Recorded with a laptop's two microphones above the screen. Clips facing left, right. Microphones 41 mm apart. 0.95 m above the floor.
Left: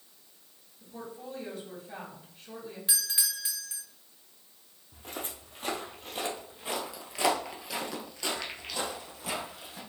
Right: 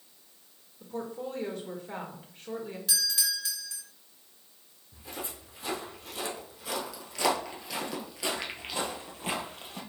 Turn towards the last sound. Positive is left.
turn(degrees=-45)  # may be behind; listen again after turning